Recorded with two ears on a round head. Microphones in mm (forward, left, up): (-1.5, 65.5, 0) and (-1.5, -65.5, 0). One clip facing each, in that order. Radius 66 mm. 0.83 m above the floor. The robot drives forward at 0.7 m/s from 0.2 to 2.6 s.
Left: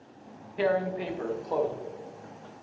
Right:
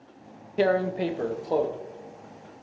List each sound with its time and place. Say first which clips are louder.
0.6 s tearing paper: right 4 dB; 50° right (ahead or behind), 0.6 m; by 1.7 s 30° right (ahead or behind), 0.9 m